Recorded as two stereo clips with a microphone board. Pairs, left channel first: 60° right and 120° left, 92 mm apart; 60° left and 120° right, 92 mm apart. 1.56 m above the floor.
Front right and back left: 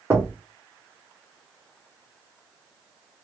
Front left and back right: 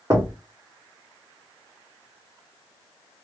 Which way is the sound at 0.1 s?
175° right.